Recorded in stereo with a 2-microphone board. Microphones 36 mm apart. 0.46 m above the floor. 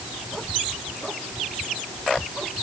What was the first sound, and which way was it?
Only background noise.